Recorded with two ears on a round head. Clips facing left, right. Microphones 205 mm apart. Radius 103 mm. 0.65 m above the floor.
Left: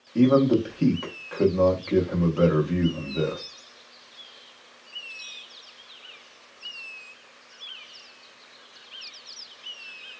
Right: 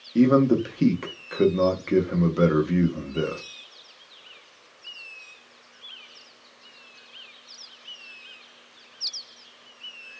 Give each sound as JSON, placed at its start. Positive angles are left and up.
{"t": 0.1, "sound": "a man speaking", "side_deg": -25, "distance_m": 0.6}